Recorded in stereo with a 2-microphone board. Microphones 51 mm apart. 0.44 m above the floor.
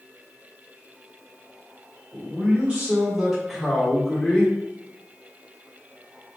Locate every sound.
2.1 s a man speaking: 35° right (ahead or behind), 1.5 m; by 4.5 s 20° left (ahead or behind), 1.3 m